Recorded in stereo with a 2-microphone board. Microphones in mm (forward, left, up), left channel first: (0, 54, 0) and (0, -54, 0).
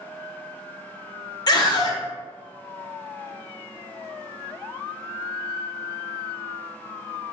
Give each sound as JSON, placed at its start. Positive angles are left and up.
{"t": 1.5, "sound": "a scream", "side_deg": 40, "distance_m": 0.9}